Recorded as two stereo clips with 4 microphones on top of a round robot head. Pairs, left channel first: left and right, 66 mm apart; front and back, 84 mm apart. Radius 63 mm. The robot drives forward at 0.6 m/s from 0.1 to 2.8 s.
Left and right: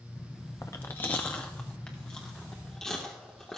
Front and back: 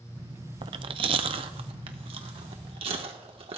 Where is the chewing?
155° left, 0.5 m; by 3.6 s 175° left, 1.8 m.